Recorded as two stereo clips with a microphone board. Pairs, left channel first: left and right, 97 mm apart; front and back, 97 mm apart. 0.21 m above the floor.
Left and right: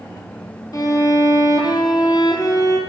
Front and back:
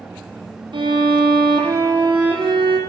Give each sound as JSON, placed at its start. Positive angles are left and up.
{"t": 0.7, "sound": "a violin", "azimuth_deg": 145, "distance_m": 3.5}